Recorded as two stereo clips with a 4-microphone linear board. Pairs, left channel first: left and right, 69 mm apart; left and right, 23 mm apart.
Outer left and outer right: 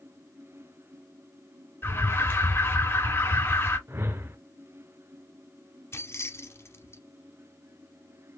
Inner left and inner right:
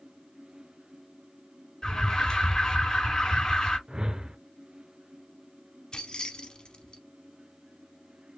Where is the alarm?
35° left (ahead or behind), 3 m.